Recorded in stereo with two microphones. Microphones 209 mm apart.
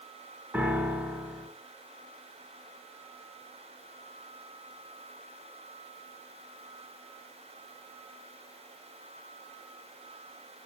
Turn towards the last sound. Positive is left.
turn(degrees=-10)  # may be behind; listen again after turning